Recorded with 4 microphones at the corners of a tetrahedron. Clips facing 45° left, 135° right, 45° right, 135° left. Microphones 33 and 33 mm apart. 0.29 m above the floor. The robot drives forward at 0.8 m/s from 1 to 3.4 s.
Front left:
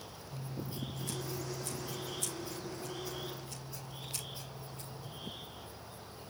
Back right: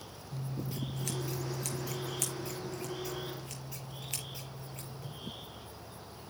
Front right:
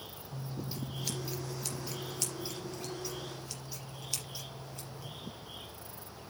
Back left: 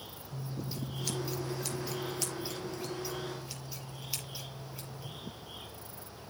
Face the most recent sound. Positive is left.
turn(degrees=-150)